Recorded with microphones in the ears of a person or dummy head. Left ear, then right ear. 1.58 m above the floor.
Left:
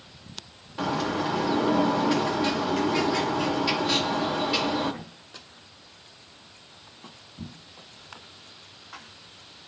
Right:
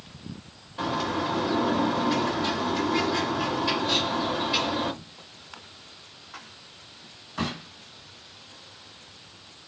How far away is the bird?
About 1.8 m.